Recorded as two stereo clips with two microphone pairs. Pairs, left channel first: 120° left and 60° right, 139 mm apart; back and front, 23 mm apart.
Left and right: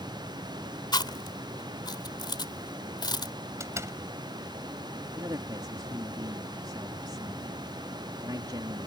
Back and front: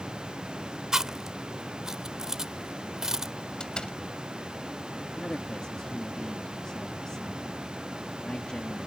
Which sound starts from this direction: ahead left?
Chewing, at 0.9 s.